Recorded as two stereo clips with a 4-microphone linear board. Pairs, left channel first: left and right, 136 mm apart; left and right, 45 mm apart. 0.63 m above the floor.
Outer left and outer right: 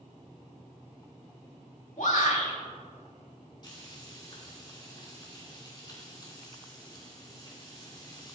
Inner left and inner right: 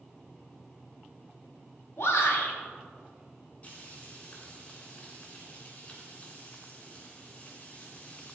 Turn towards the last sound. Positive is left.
turn(degrees=35)  # may be behind; listen again after turning